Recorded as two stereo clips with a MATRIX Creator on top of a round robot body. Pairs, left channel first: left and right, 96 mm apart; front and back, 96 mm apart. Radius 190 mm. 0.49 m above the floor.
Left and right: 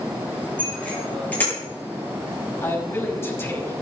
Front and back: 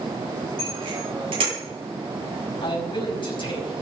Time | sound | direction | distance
0.6 | a bicycle bell | 165° left | 10 m
2.6 | a man speaking | 25° left | 5.5 m